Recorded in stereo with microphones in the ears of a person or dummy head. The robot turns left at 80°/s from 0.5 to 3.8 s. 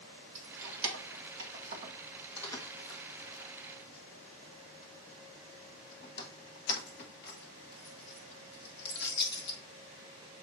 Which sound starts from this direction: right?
Keys jangling, at 0.3 s.